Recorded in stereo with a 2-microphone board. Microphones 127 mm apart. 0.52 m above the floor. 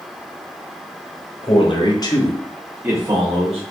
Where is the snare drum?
I don't hear a snare drum.